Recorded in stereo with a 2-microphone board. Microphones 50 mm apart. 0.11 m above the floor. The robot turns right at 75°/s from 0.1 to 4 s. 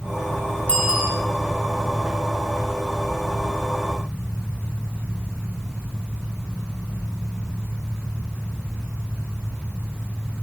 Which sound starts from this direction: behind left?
A bicycle bell, at 0.7 s.